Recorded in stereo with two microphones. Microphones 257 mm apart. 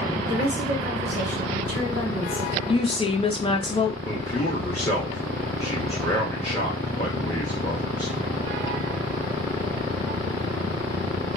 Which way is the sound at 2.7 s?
20° left (ahead or behind).